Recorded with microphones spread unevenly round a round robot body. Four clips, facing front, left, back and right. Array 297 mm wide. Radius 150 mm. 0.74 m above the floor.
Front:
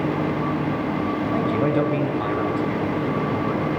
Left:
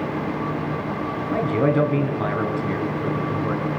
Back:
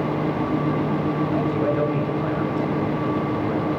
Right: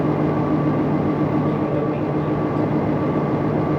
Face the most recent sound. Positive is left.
turn(degrees=75)